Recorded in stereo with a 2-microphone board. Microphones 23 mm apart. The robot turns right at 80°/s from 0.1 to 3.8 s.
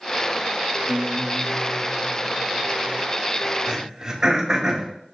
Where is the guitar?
115° right, 4 m; by 3.0 s 55° left, 4 m.